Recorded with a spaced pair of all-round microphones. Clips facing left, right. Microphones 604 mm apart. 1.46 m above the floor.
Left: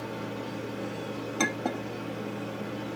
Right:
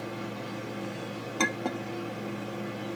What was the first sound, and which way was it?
A machine running, 75° left (ahead or behind).